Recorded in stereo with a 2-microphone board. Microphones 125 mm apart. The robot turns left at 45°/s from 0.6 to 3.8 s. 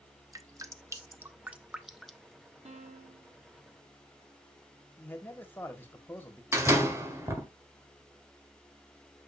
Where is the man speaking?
15° left (ahead or behind), 1.6 m.